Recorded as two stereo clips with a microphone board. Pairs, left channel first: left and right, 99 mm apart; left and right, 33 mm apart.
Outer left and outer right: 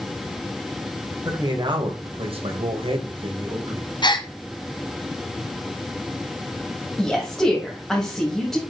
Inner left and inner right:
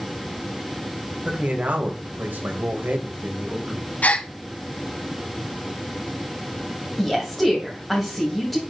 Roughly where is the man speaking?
Right.